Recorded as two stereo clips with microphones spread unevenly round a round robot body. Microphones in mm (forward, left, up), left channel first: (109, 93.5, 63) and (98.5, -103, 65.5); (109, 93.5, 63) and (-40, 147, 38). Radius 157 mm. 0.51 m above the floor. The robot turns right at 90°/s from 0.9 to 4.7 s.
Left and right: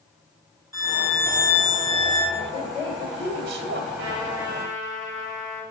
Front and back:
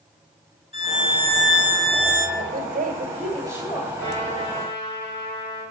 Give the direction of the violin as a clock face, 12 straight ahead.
12 o'clock.